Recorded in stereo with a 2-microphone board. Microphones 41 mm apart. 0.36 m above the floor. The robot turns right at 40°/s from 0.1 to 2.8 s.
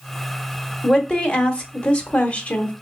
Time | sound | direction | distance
0.8 | a woman speaking | 15° left (ahead or behind) | 0.9 m